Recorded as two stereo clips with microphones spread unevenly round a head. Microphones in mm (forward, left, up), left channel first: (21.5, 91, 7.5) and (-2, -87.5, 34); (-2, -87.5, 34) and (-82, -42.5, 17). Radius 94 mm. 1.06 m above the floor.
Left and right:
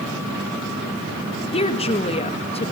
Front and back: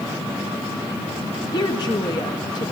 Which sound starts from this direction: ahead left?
A woman speaking, at 1.5 s.